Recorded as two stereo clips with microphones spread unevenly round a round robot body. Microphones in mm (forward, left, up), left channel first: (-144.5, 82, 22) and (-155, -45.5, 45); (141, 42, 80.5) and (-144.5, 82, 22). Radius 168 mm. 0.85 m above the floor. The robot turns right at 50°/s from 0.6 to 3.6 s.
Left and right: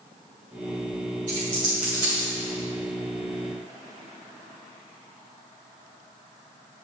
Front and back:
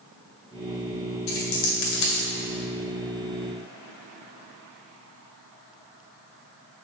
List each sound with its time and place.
1.3 s a dropped coin: 35° right, 2 m; by 2.3 s 15° left, 2 m